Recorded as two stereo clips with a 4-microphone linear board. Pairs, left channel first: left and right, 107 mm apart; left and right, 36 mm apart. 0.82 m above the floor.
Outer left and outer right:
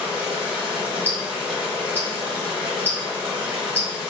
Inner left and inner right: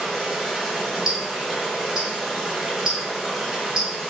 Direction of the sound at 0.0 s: 5° right (ahead or behind).